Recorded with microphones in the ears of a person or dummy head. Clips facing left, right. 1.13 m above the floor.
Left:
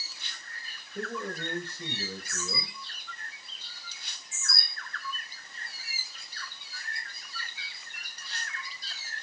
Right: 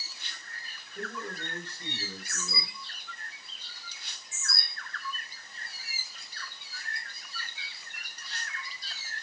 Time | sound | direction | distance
0.9 | a man speaking | 65° left (ahead or behind) | 6 m